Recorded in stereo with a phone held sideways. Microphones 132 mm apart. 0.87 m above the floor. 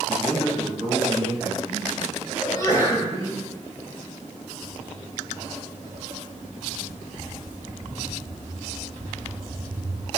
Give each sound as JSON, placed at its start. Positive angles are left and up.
{"t": 0.1, "sound": "a man speaking", "side_deg": -5, "distance_m": 4.5}
{"t": 2.4, "sound": "a sneeze", "side_deg": 25, "distance_m": 4.0}
{"t": 4.6, "sound": "footsteps", "side_deg": -50, "distance_m": 1.2}